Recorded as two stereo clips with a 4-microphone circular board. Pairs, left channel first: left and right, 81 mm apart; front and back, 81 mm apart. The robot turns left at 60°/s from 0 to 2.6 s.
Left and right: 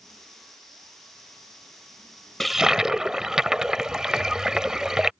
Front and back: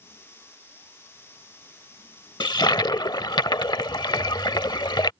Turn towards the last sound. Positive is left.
turn(degrees=-10)